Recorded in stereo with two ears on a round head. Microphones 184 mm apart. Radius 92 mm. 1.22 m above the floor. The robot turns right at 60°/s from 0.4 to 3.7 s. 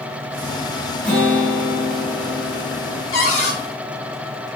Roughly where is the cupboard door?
Left.